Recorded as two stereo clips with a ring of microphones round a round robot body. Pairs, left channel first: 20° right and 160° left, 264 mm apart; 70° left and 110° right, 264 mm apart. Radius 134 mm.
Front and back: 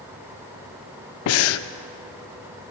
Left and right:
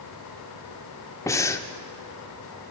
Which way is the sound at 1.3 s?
10° right.